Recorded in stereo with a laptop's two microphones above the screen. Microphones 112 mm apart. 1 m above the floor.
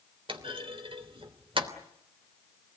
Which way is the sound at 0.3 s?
50° right (ahead or behind).